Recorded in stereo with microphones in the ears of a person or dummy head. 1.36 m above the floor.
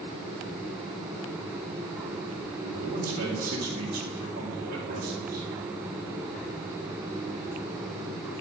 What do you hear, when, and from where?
2.6 s a man speaking: 50° right (ahead or behind), 1.3 m